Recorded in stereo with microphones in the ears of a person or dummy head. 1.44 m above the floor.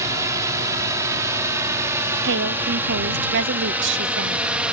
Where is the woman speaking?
60° right (ahead or behind).